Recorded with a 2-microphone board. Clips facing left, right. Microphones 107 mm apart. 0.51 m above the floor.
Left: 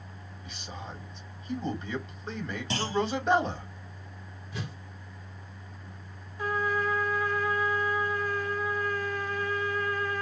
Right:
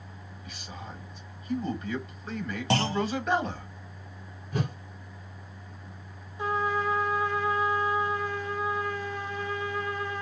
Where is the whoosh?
50° right (ahead or behind), 0.6 m.